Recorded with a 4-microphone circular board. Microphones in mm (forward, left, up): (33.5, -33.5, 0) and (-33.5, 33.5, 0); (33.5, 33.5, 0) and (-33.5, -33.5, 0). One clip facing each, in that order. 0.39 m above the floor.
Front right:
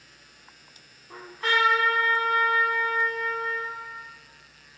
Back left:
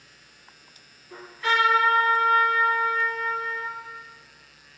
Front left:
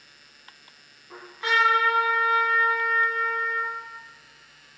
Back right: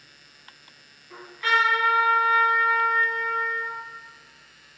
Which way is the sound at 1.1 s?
15° right.